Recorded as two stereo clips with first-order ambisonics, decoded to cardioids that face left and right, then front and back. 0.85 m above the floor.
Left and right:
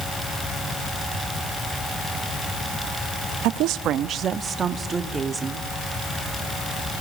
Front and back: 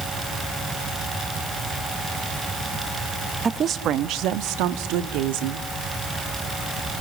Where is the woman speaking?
110° right, 0.8 m; by 5.7 s 170° right, 2.0 m.